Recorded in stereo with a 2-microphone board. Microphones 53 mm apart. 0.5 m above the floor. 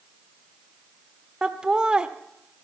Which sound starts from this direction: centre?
Laughter, at 1.4 s.